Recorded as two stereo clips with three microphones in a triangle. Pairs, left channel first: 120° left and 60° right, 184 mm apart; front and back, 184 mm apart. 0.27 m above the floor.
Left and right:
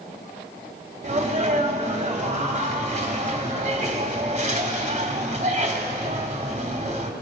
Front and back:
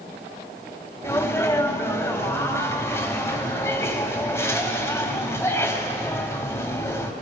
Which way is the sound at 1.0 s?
70° right.